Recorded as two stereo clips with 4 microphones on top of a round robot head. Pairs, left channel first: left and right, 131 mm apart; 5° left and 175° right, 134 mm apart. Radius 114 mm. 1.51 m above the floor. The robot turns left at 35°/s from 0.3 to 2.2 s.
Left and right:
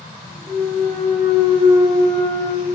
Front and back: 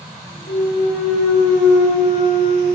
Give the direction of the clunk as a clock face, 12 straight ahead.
11 o'clock.